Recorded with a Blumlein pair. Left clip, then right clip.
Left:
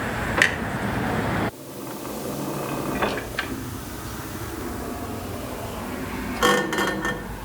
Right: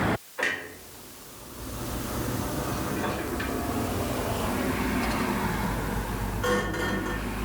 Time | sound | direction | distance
0.4 | a clunk | 45° left | 1.0 m